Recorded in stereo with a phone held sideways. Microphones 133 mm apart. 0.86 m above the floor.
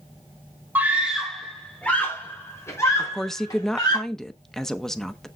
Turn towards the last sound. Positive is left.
turn(degrees=5)  # may be behind; listen again after turning